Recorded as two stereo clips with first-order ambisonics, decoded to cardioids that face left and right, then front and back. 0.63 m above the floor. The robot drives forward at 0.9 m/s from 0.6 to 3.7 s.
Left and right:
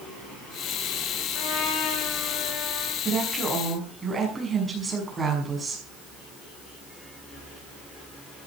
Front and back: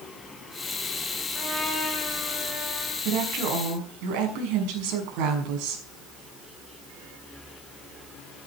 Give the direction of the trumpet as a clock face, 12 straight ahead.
9 o'clock.